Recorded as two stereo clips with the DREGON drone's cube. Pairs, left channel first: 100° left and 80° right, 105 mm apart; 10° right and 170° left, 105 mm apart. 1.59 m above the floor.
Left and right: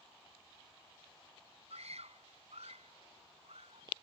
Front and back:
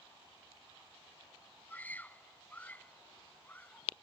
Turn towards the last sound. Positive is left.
turn(degrees=-85)